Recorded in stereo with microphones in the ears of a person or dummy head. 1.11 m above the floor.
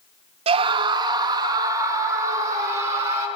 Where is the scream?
35° right (ahead or behind), 0.7 m; by 3.3 s 20° right (ahead or behind), 4 m.